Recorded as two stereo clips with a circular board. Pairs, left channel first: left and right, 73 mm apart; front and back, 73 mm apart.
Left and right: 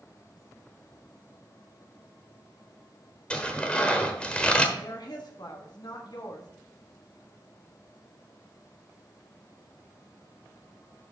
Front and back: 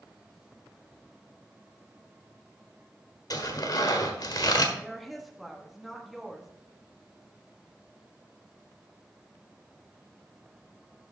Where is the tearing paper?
15° left, 1.2 m.